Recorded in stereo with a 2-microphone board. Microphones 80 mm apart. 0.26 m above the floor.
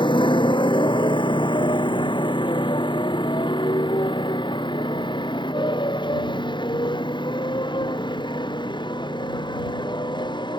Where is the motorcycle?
80° left; by 10.6 s 70° left (ahead or behind).